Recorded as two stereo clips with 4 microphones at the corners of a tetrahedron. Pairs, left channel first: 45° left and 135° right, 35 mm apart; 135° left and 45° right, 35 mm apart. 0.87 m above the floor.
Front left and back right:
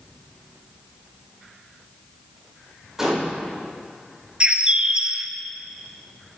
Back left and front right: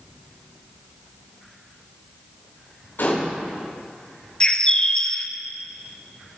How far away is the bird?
About 0.7 m.